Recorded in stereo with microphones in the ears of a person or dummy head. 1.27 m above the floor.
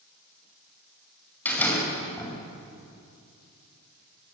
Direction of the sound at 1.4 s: 10° left (ahead or behind).